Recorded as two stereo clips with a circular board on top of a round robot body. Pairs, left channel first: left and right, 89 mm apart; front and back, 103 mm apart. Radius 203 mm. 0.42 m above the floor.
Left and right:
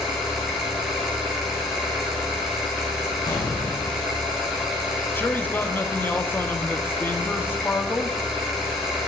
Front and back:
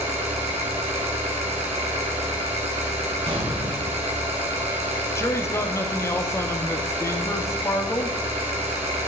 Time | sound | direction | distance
0.0 | an engine running | 175° right | 3 m
3.3 | an explosion | 140° left | 2.5 m
5.2 | a man speaking | 40° left | 1.3 m